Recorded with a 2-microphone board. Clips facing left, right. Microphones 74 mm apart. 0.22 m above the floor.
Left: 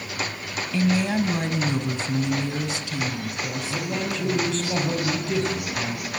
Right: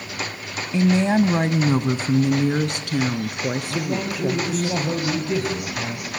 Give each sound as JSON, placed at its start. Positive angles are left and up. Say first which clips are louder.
{"t": 0.7, "sound": "a woman speaking", "louder": "right 5 dB", "side_deg": -20, "distance_m": 1.2}
{"t": 3.7, "sound": "a man speaking", "louder": "right 2 dB", "side_deg": -10, "distance_m": 5.0}